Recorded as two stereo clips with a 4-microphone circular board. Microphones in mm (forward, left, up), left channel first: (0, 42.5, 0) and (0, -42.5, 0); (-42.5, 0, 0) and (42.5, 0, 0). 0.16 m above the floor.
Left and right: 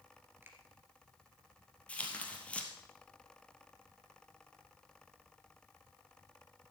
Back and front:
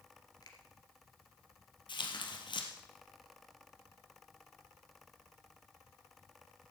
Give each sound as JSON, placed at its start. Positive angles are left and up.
{"t": 0.4, "sound": "a finger snap", "azimuth_deg": -150, "distance_m": 2.0}
{"t": 1.9, "sound": "tearing paper", "azimuth_deg": 165, "distance_m": 1.9}